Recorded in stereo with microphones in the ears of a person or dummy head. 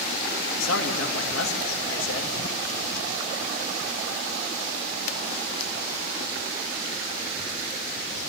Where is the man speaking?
90° left, 3.5 m.